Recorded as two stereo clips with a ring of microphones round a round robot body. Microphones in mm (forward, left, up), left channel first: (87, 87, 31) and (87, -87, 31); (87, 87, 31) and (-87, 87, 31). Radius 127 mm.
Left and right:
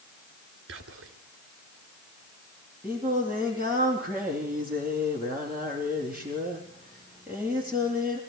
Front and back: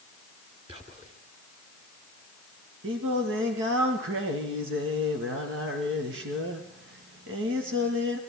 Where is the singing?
175° right, 3.5 m.